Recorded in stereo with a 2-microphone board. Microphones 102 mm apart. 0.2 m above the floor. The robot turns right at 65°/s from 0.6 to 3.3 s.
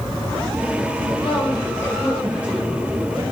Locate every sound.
1.2 s a woman speaking: 115° left, 4 m; by 3.2 s 115° right, 4 m